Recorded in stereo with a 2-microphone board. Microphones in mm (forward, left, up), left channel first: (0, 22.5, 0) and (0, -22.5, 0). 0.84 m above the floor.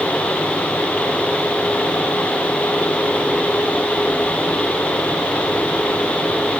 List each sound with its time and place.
Only background noise.